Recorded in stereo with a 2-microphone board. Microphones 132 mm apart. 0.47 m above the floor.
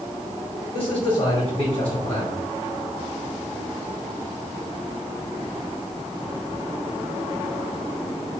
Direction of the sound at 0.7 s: 45° left (ahead or behind).